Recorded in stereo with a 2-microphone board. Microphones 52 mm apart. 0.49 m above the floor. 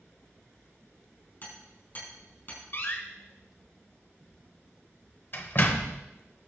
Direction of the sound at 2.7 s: 45° left (ahead or behind).